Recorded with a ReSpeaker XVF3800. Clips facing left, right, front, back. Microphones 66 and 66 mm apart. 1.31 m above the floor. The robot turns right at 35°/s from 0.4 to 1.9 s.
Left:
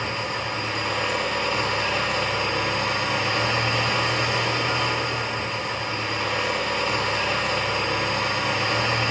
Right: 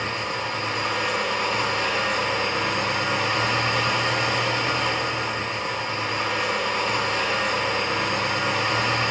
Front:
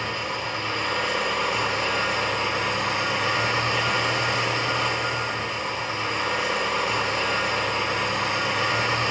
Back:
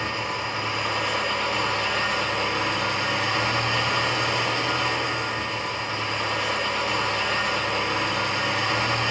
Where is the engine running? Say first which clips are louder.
Even, back 1 dB; 115° right, 3 m; by 9.1 s 65° right, 3 m.